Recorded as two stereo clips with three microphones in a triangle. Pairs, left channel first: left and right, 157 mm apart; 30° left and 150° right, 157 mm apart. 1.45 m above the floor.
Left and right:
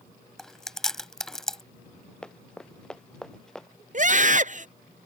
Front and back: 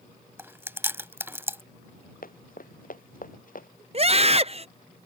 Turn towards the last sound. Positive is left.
turn(degrees=-110)